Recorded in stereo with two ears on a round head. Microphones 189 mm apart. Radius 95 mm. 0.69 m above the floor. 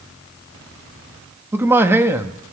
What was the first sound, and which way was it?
A man speaking, 10° right (ahead or behind).